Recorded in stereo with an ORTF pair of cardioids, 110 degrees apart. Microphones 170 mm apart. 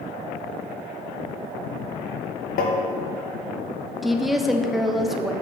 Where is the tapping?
60° left, 1.4 m.